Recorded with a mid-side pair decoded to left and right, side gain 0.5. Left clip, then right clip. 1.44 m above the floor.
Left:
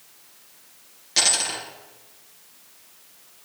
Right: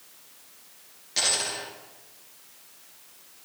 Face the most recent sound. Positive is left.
turn(degrees=40)